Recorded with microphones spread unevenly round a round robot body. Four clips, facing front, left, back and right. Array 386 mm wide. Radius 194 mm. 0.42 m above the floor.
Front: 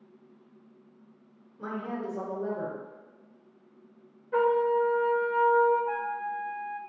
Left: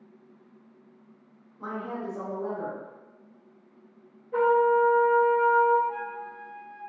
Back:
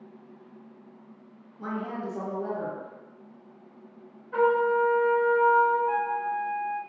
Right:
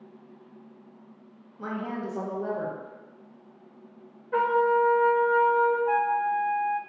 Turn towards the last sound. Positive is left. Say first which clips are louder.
# right 10 dB, back 5 dB
turn(degrees=-95)